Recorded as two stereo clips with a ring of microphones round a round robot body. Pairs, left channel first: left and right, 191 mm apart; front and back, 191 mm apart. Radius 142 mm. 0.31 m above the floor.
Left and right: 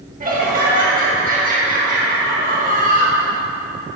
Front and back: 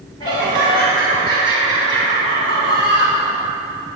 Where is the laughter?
65° right, 2 m.